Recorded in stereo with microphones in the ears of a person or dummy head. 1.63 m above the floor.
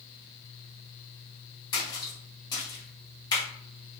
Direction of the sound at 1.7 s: 20° left (ahead or behind).